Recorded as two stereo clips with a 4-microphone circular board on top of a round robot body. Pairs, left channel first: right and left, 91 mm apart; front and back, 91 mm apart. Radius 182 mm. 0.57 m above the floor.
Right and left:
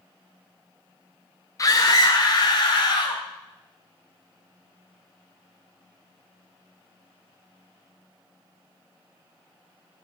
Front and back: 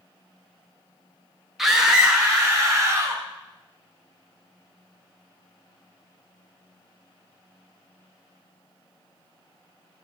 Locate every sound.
1.6 s a scream: 95° right, 1.1 m; by 3.2 s 115° right, 1.9 m